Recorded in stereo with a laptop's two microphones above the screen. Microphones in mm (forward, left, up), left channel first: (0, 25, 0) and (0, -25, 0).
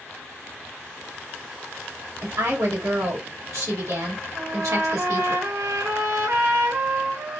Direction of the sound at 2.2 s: 80° right.